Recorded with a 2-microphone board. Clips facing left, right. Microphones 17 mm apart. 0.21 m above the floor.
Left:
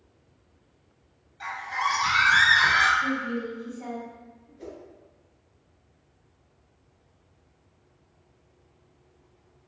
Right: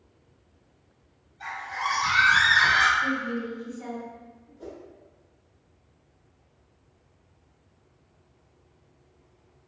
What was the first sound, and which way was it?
A scream, 50° left (ahead or behind).